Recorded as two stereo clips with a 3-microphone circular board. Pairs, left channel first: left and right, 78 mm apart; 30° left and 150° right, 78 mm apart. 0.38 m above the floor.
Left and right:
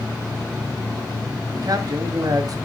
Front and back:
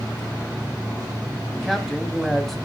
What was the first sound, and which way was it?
A man speaking, 60° right.